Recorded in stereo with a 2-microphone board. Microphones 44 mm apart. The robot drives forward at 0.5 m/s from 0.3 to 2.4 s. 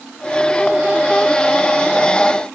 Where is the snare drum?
No snare drum in this recording.